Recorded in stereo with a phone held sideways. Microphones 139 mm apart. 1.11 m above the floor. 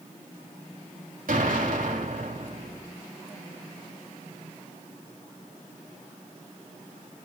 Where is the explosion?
75° right (ahead or behind), 2.5 m.